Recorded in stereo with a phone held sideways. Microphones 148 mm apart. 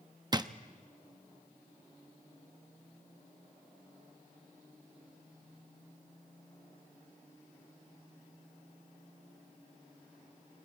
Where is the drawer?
30° right (ahead or behind), 0.6 m.